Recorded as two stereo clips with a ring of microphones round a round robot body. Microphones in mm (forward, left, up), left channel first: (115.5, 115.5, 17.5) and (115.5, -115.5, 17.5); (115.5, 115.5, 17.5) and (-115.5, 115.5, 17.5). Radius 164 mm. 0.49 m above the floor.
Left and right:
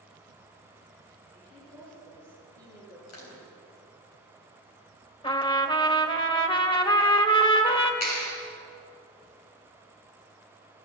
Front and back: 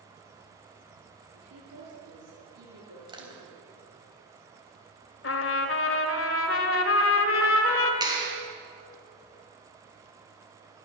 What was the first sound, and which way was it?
A woman speaking, 175° left.